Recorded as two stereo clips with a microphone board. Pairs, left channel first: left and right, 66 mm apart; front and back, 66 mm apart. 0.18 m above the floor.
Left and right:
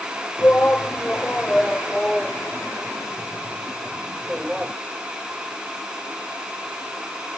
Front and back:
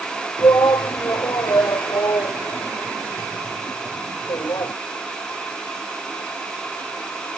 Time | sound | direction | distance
0.4 | a shout | 25° left | ?